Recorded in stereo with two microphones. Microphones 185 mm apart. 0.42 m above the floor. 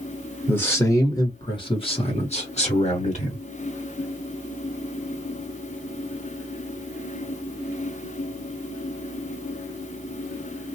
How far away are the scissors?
No scissors in this recording.